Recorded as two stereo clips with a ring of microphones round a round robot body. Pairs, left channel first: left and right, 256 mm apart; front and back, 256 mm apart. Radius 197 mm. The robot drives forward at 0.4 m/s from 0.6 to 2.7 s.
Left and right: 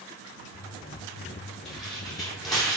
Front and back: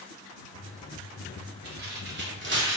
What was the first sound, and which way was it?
Tearing paper, straight behind.